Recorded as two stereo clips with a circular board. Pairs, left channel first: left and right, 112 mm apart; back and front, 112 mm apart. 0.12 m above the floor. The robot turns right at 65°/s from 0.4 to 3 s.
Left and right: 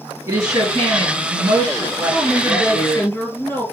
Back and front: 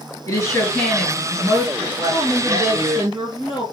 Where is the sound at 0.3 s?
140° right, 2 m; by 3.1 s 30° left, 2 m.